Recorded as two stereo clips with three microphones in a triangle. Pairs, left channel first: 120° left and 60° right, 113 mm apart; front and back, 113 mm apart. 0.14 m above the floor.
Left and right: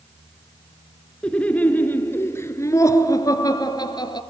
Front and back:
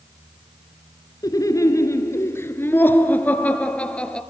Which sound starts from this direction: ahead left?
Laughter, at 1.2 s.